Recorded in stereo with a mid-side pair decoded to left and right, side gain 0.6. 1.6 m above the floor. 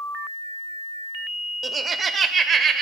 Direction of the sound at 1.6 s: 30° right.